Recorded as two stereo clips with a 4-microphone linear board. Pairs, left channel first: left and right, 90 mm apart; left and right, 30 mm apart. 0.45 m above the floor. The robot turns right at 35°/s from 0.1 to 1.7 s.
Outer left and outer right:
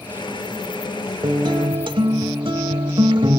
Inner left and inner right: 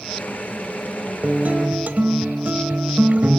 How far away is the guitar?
About 1.0 m.